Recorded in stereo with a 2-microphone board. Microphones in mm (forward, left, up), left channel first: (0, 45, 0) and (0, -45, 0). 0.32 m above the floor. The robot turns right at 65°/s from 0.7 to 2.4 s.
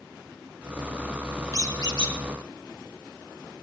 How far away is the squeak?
About 2.5 m.